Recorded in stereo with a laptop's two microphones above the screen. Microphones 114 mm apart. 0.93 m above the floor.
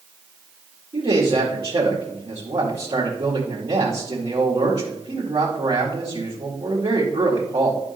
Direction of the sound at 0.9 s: 45° right (ahead or behind).